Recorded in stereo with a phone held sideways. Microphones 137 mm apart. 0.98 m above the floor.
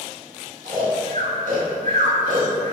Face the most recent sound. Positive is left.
turn(degrees=-80)